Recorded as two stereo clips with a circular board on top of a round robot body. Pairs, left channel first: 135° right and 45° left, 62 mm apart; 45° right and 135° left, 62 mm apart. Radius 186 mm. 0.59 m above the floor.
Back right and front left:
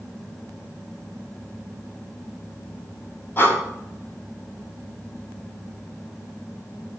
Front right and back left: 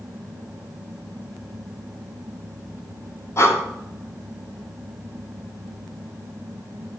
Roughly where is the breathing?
Right.